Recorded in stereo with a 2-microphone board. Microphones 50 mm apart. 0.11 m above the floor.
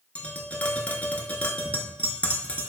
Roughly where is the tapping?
Left.